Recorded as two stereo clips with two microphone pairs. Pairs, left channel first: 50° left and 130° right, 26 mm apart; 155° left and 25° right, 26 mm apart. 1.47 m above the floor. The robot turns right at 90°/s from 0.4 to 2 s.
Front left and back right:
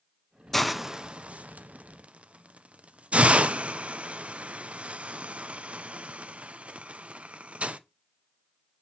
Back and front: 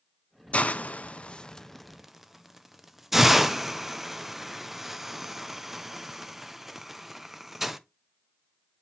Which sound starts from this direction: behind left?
A hiss, at 0.5 s.